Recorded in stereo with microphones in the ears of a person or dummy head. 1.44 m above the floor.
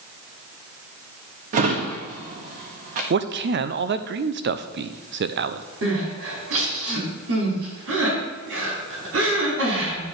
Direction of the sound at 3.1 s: 55° right (ahead or behind).